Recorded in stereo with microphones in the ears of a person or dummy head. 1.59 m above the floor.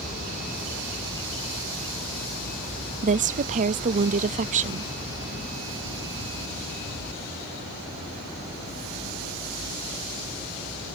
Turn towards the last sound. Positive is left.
turn(degrees=-40)  # may be behind; listen again after turning